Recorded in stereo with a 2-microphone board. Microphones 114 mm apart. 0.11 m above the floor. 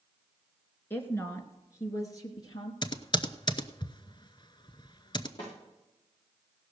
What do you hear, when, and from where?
0.9 s a woman speaking: 20° left (ahead or behind), 1.8 m; by 2.7 s 35° left (ahead or behind), 2.5 m
2.8 s typing on a keyboard: 40° left (ahead or behind), 0.8 m
5.4 s a snare drum: 40° left (ahead or behind), 8.5 m